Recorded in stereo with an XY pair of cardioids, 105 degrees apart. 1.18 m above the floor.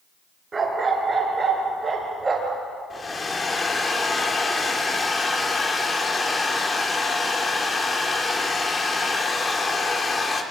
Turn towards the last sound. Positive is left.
turn(degrees=30)